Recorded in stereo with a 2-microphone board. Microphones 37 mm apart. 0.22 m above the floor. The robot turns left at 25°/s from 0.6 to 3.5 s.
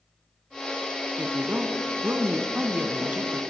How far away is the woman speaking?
About 1.7 m.